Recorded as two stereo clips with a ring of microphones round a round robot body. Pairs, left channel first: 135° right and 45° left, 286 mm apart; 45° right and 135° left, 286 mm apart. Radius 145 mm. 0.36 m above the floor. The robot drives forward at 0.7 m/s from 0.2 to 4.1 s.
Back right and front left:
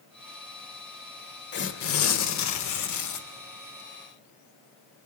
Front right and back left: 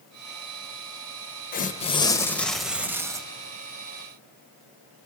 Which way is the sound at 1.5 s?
95° right.